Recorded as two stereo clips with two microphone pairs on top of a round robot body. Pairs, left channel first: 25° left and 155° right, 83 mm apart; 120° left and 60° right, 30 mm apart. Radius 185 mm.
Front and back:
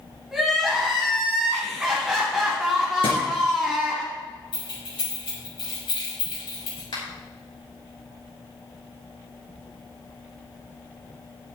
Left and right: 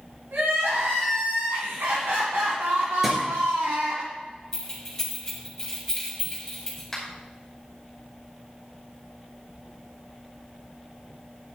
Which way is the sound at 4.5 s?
40° left.